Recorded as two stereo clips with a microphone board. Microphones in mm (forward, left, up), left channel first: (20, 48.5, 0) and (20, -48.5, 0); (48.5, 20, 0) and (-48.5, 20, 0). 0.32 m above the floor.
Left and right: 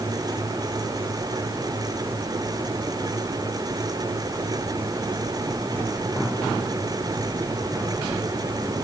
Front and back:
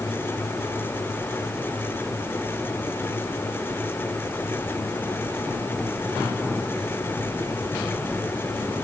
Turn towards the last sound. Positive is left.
No sound to turn to.